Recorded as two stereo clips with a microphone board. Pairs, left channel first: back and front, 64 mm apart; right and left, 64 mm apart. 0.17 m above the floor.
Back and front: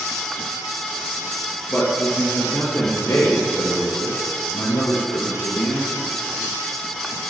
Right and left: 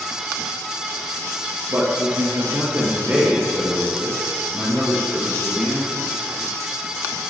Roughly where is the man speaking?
Left.